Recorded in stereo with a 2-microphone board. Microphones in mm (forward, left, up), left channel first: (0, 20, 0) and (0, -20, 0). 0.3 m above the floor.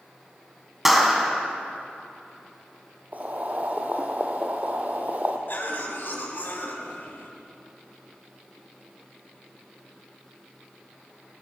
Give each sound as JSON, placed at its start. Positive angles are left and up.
{"t": 0.8, "sound": "a clap", "side_deg": -5, "distance_m": 1.6}
{"t": 3.1, "sound": "boiling", "side_deg": -40, "distance_m": 1.6}
{"t": 5.5, "sound": "a cough", "side_deg": 55, "distance_m": 2.5}